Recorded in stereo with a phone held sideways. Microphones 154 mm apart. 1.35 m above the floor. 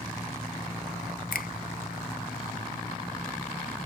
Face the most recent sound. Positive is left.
turn(degrees=70)  # may be behind; listen again after turning